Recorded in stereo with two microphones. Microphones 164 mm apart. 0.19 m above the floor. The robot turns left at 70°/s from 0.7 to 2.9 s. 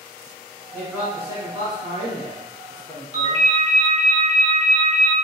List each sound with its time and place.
0.7 s a man speaking: 10° left, 1.3 m; by 3.5 s 145° right, 1.3 m
3.1 s a ringtone: 40° right (ahead or behind), 0.9 m